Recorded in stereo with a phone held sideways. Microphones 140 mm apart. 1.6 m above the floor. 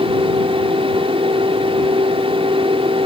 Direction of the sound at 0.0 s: 40° right (ahead or behind).